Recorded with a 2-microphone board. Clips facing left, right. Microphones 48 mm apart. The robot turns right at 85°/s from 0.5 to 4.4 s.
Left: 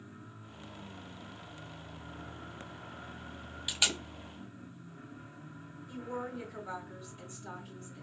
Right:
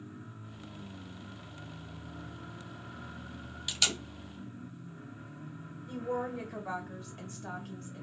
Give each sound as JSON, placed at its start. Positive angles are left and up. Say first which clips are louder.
{"t": 3.7, "sound": "tape being pulled", "louder": "even", "side_deg": 10, "distance_m": 0.9}
{"t": 5.9, "sound": "a woman speaking", "louder": "right 5 dB", "side_deg": -55, "distance_m": 1.6}